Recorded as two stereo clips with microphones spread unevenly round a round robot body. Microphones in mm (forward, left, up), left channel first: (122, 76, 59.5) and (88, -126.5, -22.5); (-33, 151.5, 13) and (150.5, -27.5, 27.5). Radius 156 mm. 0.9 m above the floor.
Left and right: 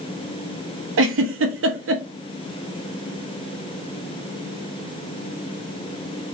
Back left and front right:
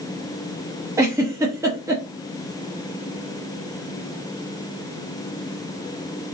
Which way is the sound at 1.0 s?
125° right.